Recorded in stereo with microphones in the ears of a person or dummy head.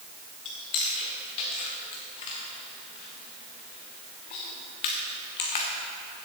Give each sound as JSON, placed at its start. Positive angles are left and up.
{"t": 0.5, "sound": "chewing", "side_deg": 25, "distance_m": 1.1}